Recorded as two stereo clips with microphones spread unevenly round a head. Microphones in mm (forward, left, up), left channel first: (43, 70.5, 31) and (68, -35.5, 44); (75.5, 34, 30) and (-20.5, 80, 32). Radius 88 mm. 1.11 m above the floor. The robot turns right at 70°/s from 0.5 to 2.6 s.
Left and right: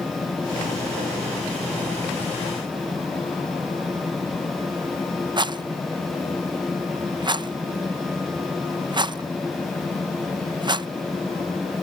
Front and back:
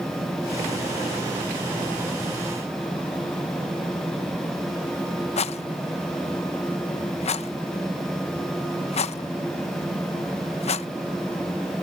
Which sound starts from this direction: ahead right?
A rattle, at 5.4 s.